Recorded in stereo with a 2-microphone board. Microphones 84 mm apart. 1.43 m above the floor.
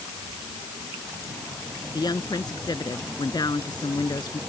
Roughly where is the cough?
No cough in this recording.